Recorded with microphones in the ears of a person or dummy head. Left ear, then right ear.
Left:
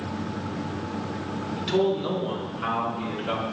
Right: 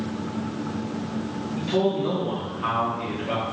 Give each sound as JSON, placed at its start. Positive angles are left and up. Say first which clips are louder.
{"t": 1.6, "sound": "a man speaking", "louder": "even", "side_deg": 85, "distance_m": 2.5}